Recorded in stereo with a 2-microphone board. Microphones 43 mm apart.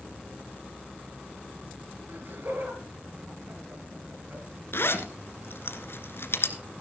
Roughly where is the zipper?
Left.